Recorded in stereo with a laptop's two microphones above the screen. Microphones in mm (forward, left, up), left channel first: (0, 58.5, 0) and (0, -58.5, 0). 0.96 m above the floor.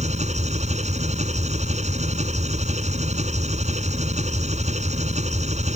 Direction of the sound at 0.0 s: 85° right.